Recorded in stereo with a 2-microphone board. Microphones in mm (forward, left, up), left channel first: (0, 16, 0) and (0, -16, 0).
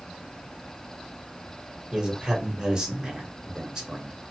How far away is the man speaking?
About 1.3 m.